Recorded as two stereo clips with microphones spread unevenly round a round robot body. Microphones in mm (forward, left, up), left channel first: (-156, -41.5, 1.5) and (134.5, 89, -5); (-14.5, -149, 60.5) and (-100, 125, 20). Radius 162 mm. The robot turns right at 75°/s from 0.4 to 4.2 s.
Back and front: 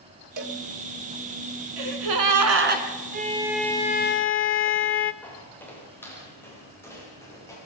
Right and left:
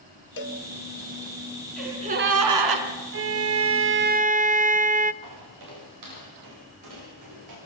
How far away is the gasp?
About 2.5 m.